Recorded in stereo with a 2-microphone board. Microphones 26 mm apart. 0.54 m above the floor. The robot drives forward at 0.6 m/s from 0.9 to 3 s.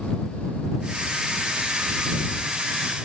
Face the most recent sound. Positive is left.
No sound to turn to.